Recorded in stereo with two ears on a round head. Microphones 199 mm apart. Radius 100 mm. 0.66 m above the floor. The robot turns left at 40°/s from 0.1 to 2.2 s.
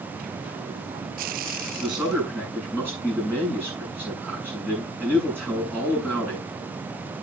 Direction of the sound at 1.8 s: 25° right (ahead or behind).